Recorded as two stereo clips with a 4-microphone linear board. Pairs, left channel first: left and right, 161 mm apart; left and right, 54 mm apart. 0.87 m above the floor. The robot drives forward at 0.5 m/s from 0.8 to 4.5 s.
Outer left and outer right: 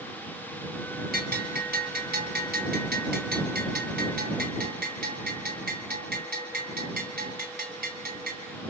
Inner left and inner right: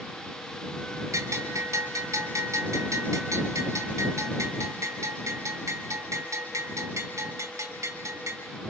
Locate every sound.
1.1 s a bell: 70° right (ahead or behind), 3.5 m; by 8.4 s 75° right (ahead or behind), 3.5 m